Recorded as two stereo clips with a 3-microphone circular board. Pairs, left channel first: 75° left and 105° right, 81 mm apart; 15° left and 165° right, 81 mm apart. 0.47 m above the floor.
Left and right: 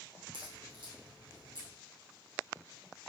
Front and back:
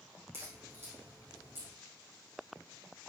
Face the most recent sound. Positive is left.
turn(degrees=-105)